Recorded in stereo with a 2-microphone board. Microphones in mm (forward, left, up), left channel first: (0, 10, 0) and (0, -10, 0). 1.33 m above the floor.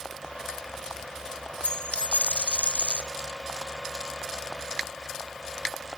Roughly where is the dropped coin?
Left.